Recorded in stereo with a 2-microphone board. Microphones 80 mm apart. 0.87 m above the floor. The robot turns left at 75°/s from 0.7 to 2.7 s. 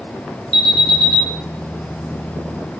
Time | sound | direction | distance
0.5 | an alarm | 80° right | 2 m